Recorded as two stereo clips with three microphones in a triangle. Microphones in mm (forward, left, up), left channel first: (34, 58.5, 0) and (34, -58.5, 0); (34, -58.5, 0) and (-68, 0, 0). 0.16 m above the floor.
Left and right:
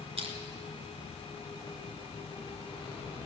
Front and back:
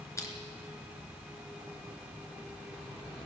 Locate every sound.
0.2 s crushing: 90° right, 2.5 m